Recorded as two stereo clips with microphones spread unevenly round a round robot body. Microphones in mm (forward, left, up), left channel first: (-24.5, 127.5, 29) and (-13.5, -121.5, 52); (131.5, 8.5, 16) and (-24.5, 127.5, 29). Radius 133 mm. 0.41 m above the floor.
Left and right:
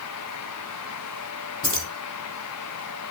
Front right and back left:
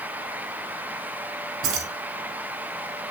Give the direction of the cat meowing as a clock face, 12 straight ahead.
No cat meowing in this recording.